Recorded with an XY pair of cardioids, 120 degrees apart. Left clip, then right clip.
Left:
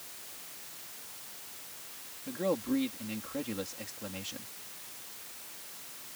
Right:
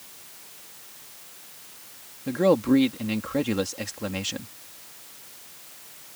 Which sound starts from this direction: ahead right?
A man speaking, at 2.3 s.